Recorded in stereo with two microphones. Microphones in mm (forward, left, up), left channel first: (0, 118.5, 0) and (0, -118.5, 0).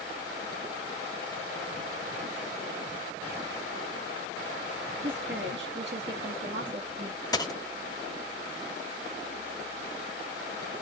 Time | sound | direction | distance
5.0 | a woman speaking | 50° right (ahead or behind) | 1.4 m
7.3 | a dropped coin | 15° left (ahead or behind) | 0.6 m